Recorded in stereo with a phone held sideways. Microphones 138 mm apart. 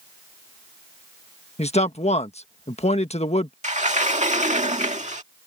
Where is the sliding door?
60° right (ahead or behind).